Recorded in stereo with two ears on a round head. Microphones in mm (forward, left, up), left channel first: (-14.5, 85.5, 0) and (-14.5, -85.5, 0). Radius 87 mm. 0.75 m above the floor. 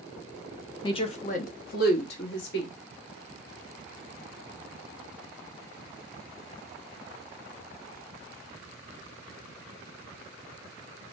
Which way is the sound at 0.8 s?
25° left (ahead or behind).